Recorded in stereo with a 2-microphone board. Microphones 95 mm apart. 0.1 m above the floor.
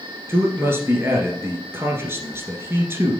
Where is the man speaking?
25° right (ahead or behind), 1.6 m.